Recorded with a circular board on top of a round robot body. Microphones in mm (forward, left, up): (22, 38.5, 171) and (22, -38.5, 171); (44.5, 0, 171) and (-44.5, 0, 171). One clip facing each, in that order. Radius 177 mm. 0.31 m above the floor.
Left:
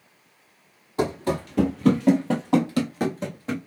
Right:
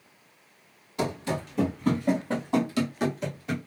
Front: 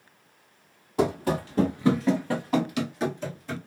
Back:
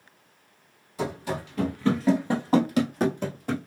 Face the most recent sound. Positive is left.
turn(degrees=150)